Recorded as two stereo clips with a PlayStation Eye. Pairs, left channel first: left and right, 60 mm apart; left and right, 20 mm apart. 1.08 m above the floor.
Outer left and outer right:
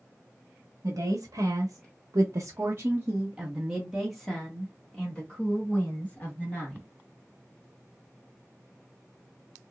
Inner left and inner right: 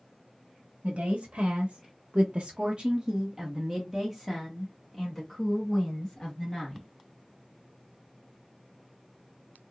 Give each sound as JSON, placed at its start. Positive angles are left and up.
{"t": 0.8, "sound": "a woman speaking", "side_deg": -65, "distance_m": 1.3}